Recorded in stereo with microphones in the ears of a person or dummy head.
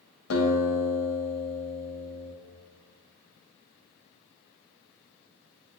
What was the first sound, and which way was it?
A guitar, 85° left.